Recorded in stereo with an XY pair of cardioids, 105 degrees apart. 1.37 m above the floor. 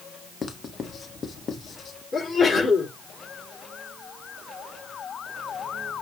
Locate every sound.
0.4 s writing: 50° left, 1.6 m
2.1 s a sneeze: 40° left, 5.5 m